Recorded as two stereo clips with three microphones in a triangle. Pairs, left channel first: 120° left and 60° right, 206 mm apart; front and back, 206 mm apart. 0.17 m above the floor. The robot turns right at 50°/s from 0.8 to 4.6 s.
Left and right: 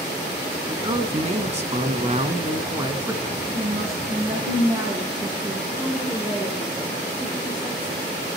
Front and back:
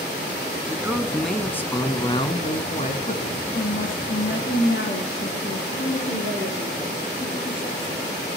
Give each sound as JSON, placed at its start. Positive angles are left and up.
{"t": 0.7, "sound": "a man speaking", "azimuth_deg": -110, "distance_m": 1.3}
{"t": 3.5, "sound": "a woman speaking", "azimuth_deg": -50, "distance_m": 9.5}
{"t": 5.7, "sound": "a woman speaking", "azimuth_deg": 10, "distance_m": 4.0}